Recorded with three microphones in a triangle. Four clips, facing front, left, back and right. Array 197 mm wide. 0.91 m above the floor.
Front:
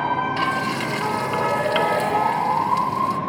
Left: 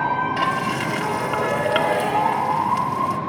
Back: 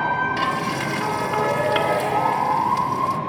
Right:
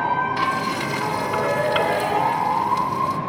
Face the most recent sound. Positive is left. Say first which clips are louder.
# even, even
turn(degrees=80)